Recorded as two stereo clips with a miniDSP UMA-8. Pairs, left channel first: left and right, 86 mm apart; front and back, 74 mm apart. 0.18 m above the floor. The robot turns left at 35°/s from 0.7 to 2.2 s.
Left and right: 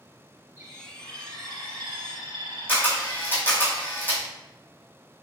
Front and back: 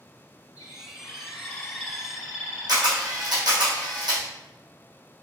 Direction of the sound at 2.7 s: 155° left.